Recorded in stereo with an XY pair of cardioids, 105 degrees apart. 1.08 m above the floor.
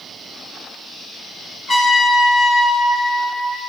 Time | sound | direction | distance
1.7 | a trumpet | 30° left | 3.5 m